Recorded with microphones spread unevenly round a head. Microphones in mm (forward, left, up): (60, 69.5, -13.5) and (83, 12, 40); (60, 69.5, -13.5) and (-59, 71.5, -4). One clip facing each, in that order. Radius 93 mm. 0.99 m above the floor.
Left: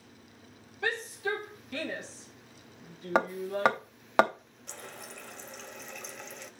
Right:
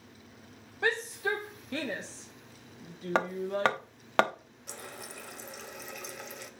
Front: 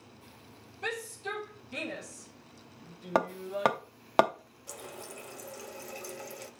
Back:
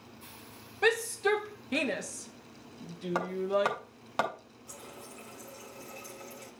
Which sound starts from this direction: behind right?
A shout, at 0.8 s.